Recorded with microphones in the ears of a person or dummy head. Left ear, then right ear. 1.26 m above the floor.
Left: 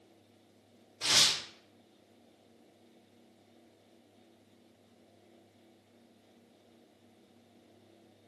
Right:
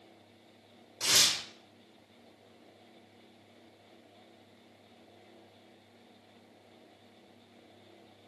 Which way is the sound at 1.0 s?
60° right (ahead or behind).